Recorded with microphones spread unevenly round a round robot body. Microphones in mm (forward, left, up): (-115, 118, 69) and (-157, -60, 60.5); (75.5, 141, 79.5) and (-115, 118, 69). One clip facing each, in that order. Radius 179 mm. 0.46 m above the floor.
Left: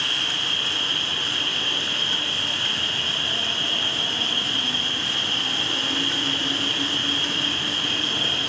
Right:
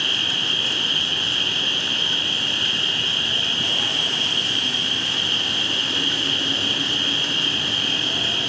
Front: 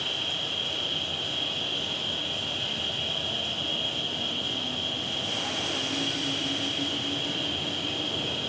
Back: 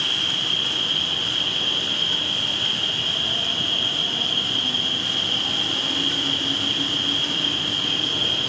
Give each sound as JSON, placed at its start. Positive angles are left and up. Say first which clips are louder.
{"t": 0.0, "sound": "an insect", "louder": "right 3 dB, back 3 dB", "azimuth_deg": -160, "distance_m": 1.4}